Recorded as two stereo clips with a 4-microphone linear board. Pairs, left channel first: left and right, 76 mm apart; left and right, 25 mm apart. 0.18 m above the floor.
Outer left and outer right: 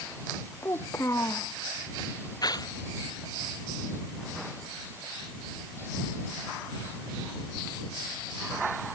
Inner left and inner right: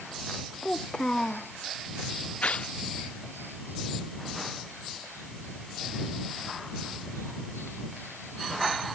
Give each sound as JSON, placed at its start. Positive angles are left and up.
{"t": 0.6, "sound": "a child speaking", "side_deg": 35}
{"t": 2.4, "sound": "tearing paper", "side_deg": 55}